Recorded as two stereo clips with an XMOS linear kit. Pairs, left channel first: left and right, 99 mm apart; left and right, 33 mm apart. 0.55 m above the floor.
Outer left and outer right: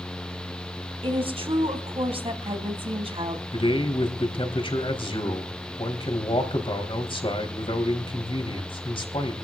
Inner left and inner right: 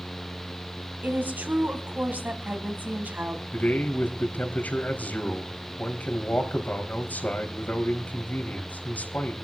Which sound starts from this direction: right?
A woman speaking, at 1.0 s.